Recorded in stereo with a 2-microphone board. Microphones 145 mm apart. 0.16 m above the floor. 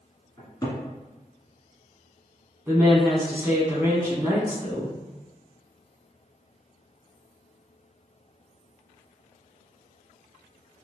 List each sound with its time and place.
0.4 s a cupboard door: 30° left (ahead or behind), 1.7 m
2.7 s a woman speaking: 15° right (ahead or behind), 1.1 m